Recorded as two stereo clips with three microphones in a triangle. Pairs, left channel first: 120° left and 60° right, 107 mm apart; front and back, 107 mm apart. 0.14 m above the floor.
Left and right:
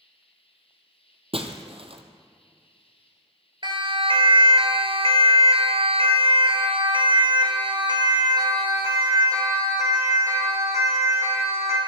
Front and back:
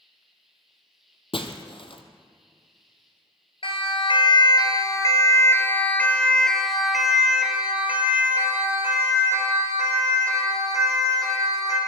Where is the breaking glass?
35° right, 1.9 m.